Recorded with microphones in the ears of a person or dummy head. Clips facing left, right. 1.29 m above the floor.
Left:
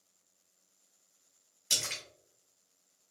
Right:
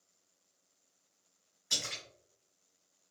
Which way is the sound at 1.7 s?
55° left (ahead or behind).